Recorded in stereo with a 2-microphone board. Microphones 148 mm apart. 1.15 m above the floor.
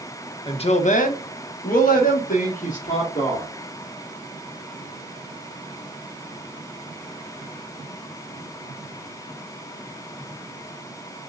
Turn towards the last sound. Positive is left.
turn(degrees=50)  # may be behind; listen again after turning